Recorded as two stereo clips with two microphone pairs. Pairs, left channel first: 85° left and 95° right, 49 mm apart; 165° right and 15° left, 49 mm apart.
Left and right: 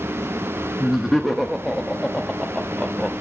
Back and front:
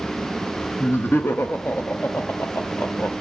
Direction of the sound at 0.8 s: Straight behind.